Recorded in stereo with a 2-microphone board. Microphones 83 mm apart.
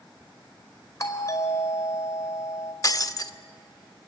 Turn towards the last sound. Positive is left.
turn(degrees=40)  # may be behind; listen again after turning